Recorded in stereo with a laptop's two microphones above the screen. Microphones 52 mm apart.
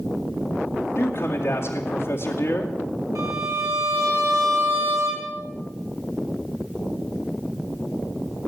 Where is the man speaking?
50° left (ahead or behind), 2 m.